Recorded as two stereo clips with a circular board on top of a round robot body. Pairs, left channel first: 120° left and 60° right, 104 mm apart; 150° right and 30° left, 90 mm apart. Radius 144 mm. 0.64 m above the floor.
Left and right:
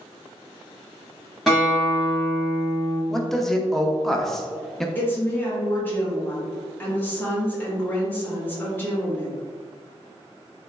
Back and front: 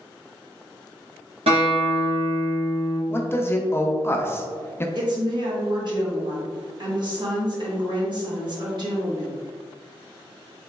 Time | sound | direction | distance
1.5 | a guitar | 30° left | 0.8 m
3.1 | a man speaking | 155° right | 0.6 m
5.0 | a woman speaking | 50° left | 1.2 m